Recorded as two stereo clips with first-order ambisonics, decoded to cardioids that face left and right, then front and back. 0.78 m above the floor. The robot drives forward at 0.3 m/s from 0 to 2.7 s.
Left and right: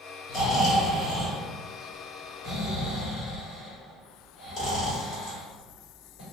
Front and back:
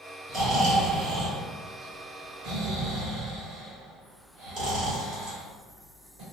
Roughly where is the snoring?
Behind left.